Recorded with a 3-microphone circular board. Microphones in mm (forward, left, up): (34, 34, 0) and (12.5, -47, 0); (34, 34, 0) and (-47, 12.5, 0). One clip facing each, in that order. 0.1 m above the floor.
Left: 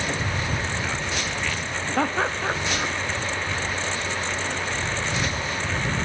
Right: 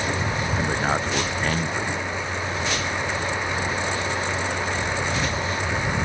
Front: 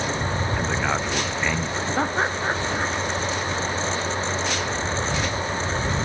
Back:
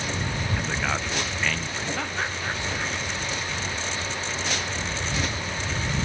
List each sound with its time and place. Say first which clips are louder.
0.6 s a man speaking: right 5 dB, front 3 dB; 60° right; by 1.9 s 55° right
2.0 s laughter: left 4 dB, front 10 dB; 70° left